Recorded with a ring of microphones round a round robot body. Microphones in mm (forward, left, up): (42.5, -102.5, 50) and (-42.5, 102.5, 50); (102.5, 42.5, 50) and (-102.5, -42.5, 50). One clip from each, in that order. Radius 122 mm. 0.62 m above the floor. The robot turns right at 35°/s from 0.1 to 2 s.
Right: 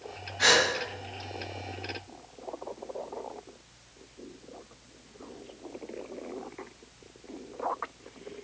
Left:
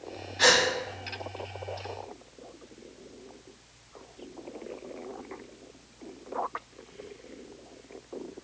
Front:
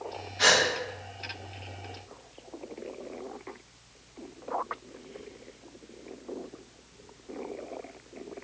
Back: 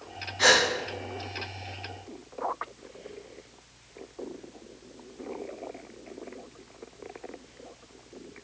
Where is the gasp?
100° left, 1.6 m; by 0.6 s 105° left, 1.6 m.